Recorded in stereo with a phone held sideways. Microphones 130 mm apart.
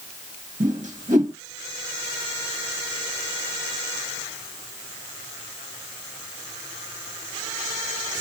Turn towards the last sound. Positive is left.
turn(degrees=-75)  # may be behind; listen again after turning